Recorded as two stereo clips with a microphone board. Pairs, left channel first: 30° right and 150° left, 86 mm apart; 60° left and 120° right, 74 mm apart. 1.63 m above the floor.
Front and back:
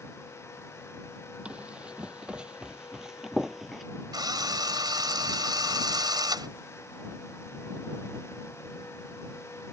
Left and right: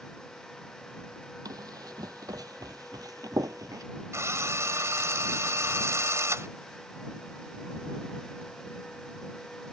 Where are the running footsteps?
135° right; by 3.8 s 120° right.